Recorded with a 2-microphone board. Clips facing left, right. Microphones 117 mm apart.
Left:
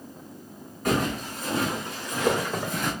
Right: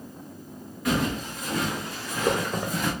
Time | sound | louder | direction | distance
0.8 | footsteps | even | 50° left (ahead or behind) | 1.5 m